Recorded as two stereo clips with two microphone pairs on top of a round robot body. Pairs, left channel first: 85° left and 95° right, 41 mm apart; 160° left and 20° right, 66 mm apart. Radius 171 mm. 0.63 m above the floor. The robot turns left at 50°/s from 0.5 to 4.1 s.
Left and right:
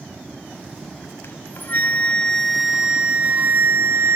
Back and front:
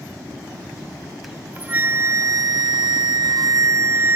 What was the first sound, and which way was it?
A flute, 65° left.